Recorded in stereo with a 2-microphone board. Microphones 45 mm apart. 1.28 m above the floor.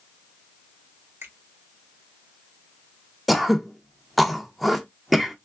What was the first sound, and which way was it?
A finger snap, 65° right (ahead or behind).